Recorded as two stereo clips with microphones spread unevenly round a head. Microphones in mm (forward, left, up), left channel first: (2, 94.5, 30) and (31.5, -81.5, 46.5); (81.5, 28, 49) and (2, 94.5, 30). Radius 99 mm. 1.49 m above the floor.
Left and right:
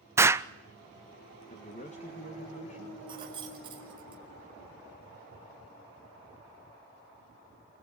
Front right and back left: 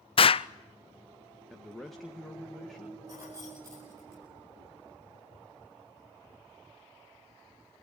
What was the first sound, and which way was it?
An explosion, 5° right.